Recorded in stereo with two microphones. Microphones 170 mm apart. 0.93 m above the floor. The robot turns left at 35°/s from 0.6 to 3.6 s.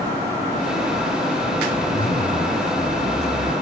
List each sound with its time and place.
1.7 s a zipper: 80° left; by 3.5 s 20° left